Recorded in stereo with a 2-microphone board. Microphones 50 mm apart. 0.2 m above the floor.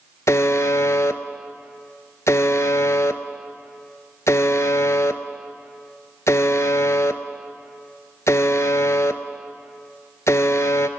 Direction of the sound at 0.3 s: 80° left.